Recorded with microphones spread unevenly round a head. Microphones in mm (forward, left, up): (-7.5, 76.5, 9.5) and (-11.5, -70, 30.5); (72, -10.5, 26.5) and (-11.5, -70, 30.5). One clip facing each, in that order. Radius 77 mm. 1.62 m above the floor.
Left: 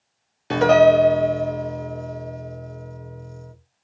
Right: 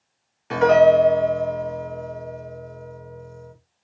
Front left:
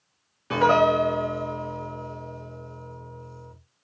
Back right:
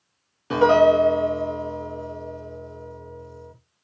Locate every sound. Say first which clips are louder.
0.5 s a piano: even, back right 4 dB; 145° left, 0.9 m